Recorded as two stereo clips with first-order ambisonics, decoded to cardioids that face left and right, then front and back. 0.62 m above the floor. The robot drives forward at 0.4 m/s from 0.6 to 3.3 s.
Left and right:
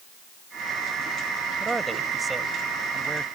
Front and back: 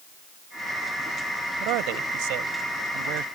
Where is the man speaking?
170° right.